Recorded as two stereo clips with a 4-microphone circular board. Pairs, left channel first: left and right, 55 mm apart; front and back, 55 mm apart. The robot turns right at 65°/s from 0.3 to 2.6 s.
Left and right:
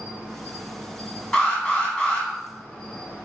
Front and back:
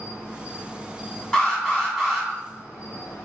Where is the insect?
135° right, 1.3 m; by 3.2 s 15° left, 1.3 m.